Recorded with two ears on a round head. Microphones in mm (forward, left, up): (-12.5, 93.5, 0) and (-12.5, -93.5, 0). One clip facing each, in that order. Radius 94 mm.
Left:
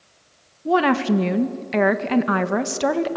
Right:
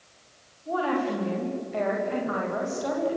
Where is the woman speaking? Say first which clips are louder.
Left 8 dB; 80° left, 1.7 m.